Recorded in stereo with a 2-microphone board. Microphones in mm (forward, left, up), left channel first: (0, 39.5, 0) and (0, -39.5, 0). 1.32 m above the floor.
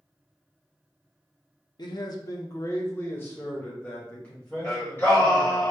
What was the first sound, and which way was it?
A man speaking, 60° left (ahead or behind).